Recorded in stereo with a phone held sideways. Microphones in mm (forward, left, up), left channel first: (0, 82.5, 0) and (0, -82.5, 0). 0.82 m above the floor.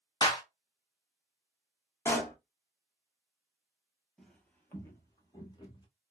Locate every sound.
0.2 s a clap: 25° left (ahead or behind), 0.6 m
2.0 s a pop: 15° left (ahead or behind), 0.7 m
4.2 s footsteps: 5° left (ahead or behind), 0.8 m; by 5.9 s 25° left (ahead or behind), 1.0 m